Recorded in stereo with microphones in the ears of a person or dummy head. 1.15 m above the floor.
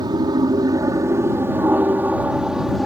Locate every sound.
0.0 s an aircraft: 25° right (ahead or behind); by 2.9 s centre (ahead or behind)